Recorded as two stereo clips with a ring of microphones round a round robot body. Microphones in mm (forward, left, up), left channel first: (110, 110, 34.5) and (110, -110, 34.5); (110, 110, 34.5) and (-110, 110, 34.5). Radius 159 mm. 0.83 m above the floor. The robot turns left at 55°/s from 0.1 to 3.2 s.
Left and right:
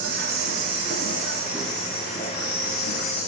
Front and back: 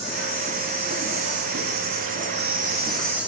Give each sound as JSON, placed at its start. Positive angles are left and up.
{"t": 0.0, "sound": "an insect", "azimuth_deg": -95, "distance_m": 2.0}